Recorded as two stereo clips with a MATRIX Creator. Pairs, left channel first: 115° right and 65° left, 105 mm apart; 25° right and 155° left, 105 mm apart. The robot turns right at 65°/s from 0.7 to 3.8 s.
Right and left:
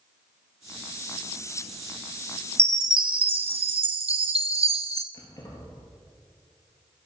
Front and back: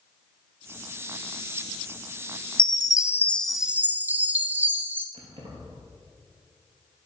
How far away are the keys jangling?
About 2.5 m.